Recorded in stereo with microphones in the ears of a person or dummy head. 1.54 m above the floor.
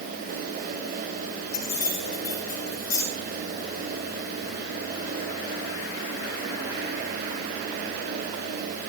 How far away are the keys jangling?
About 6 m.